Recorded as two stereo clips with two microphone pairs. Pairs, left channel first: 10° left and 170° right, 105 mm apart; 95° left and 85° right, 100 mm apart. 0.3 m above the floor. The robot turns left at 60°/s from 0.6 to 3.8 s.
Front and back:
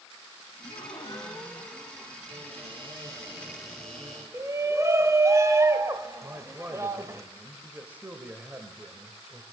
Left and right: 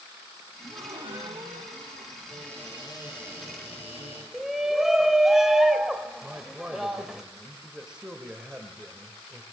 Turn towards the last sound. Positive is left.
turn(degrees=-145)